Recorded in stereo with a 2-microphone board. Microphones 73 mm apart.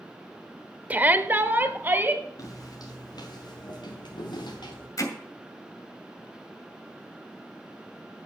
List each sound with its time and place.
0.9 s a shout: 25° right (ahead or behind), 0.8 m
2.4 s footsteps: 55° left (ahead or behind), 3 m; by 4.9 s 80° left, 4.5 m
5.0 s hammering: 50° left (ahead or behind), 2 m